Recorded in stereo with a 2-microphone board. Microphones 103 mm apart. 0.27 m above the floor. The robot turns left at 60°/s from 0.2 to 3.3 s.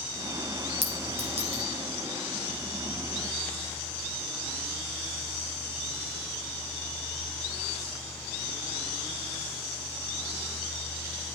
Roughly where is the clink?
Right.